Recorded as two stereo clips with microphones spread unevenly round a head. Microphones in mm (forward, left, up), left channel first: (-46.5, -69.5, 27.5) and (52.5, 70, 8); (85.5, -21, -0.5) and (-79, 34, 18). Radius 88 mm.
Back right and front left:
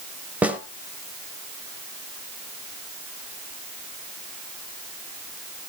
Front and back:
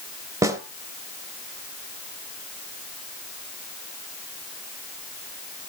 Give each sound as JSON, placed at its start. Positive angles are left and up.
{"t": 0.4, "sound": "a snare drum", "azimuth_deg": 140, "distance_m": 1.2}